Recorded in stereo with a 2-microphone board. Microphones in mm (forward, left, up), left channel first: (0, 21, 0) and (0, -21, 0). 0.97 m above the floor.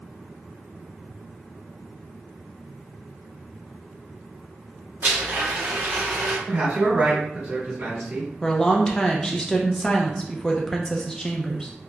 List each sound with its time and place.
5.0 s a blender: 45° right (ahead or behind), 1.8 m
6.5 s a man speaking: 65° right (ahead or behind), 1.9 m
8.4 s a woman speaking: 15° left (ahead or behind), 0.6 m